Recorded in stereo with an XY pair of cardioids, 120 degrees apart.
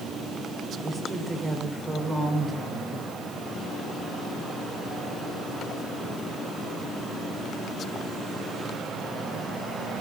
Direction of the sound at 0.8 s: 20° right.